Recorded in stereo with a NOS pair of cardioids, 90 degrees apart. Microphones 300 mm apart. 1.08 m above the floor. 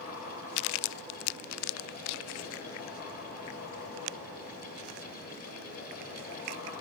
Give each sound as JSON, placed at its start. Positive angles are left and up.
{"t": 0.0, "sound": "a fan", "azimuth_deg": 50, "distance_m": 1.5}